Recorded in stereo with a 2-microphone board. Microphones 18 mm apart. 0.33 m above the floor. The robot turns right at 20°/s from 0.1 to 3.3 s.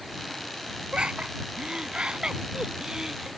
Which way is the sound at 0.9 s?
70° right (ahead or behind).